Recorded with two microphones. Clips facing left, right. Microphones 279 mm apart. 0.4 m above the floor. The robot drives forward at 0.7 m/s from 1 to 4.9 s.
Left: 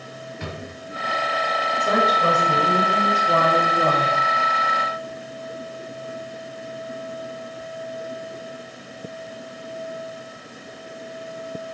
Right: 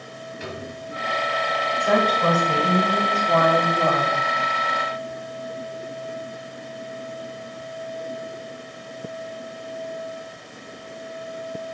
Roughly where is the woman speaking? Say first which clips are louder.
Right 1 dB; left.